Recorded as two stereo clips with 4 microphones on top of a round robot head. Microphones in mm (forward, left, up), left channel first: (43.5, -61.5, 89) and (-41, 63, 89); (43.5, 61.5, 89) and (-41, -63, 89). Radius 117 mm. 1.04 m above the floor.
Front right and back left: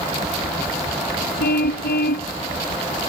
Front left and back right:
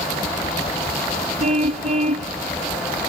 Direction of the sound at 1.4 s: 80° right.